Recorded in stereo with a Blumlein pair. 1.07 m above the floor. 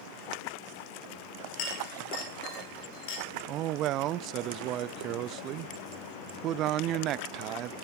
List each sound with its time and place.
1.6 s a clink: 45° left, 3.5 m
3.5 s a man speaking: 35° right, 0.7 m